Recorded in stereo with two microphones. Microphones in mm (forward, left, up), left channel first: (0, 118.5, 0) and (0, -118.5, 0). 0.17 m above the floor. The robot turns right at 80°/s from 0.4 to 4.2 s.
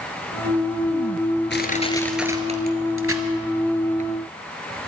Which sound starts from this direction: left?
Crushing, at 1.5 s.